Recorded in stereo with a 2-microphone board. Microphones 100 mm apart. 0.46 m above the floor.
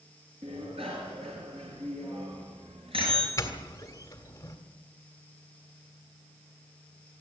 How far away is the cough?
No cough in this recording.